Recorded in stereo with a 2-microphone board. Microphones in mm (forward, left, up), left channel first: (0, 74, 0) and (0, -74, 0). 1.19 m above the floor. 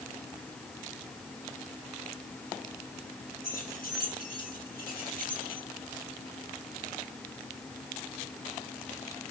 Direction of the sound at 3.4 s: 85° left.